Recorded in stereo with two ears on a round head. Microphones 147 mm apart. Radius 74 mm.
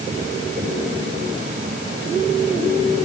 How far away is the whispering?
I don't hear whispering.